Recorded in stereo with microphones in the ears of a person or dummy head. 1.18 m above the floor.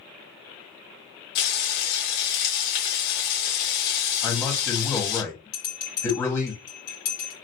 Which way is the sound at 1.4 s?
55° left (ahead or behind).